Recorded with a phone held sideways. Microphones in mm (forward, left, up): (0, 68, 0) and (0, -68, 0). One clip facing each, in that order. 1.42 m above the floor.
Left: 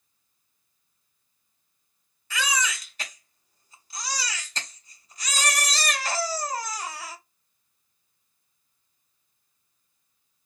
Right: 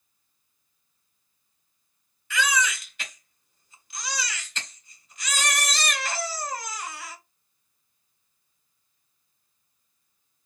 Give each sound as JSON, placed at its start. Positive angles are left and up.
{"t": 2.3, "sound": "a baby crying", "side_deg": 35, "distance_m": 1.2}